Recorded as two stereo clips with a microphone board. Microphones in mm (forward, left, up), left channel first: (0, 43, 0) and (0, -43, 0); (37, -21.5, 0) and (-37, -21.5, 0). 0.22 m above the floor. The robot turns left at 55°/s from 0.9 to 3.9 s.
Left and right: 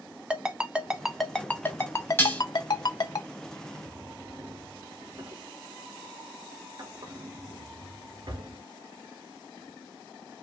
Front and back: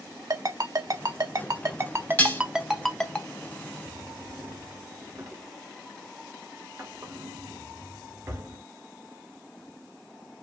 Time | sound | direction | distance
0.3 | a ringtone | 165° right | 0.6 m
2.2 | dishes clattering | 45° left | 0.7 m
3.9 | a drawer | 125° right | 0.8 m